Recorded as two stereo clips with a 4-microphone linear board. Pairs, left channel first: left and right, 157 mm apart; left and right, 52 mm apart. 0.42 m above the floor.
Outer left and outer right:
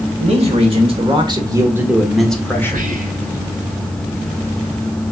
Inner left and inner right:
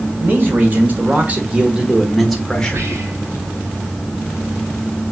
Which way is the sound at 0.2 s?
40° right (ahead or behind).